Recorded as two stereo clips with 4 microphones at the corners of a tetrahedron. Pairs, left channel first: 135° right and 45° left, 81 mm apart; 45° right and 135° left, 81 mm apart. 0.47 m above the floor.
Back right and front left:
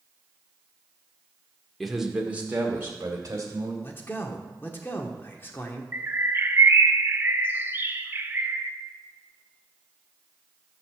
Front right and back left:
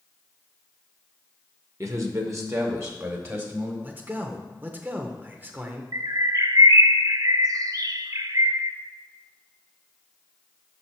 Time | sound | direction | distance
1.8 | a man speaking | 135° left | 1.0 m
3.8 | a man speaking | straight behind | 0.9 m
5.9 | a bird | 105° left | 0.5 m